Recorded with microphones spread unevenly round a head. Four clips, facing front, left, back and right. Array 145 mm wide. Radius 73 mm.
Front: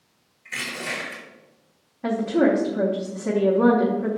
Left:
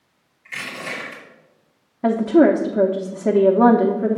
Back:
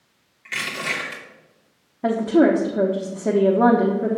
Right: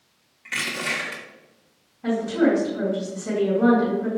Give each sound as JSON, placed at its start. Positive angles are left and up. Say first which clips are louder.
{"t": 0.5, "sound": "crushing", "louder": "right 2 dB, back 3 dB", "azimuth_deg": -125, "distance_m": 3.0}
{"t": 2.0, "sound": "a woman speaking", "louder": "left 6 dB, back 4 dB", "azimuth_deg": 125, "distance_m": 0.7}